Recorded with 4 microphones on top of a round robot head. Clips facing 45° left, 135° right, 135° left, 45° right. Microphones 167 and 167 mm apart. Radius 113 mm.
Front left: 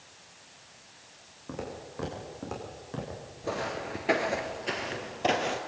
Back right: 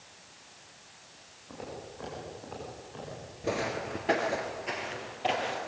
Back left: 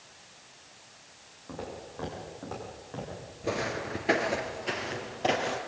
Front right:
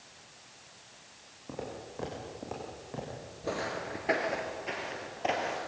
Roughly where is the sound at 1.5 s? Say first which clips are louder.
Front left 3 dB, even; ahead left.